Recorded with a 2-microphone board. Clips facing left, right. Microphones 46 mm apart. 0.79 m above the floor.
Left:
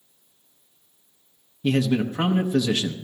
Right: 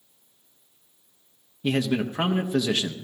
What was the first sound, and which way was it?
A man speaking, 10° right (ahead or behind).